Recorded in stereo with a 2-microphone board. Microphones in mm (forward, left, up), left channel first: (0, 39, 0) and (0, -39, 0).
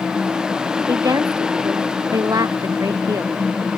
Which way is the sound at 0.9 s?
45° right (ahead or behind).